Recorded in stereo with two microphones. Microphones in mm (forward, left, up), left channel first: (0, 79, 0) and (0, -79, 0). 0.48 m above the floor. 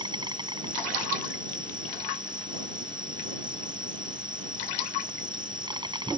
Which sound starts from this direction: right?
An insect, at 0.0 s.